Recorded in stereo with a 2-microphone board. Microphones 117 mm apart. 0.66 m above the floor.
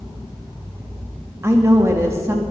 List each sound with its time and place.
1.4 s a woman speaking: 25° right (ahead or behind), 0.9 m